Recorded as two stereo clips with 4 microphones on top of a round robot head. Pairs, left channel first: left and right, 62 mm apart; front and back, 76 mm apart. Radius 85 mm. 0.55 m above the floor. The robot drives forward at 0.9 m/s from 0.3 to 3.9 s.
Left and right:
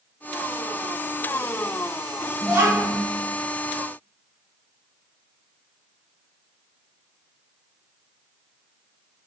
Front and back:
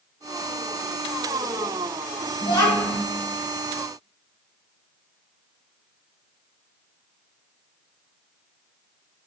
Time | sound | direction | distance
2.4 | a child speaking | 25° right | 2.5 m